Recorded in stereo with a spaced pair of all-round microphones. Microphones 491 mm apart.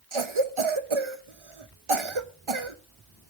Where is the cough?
75° right (ahead or behind), 1.0 m.